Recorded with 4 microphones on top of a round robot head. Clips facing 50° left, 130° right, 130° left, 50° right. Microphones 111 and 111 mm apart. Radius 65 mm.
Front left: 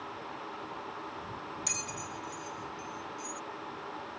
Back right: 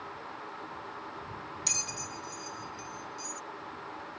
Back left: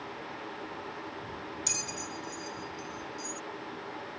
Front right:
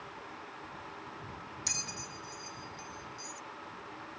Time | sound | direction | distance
1.7 | a bell | 165° right | ?